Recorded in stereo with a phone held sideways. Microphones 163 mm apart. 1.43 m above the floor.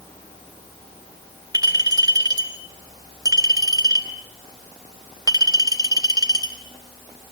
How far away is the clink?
About 4 m.